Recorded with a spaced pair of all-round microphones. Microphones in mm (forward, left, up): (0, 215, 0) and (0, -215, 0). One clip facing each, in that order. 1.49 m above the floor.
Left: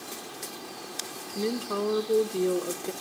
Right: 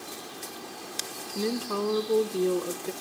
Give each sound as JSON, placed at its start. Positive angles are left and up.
{"t": 1.4, "sound": "a woman speaking", "side_deg": -5, "distance_m": 0.9}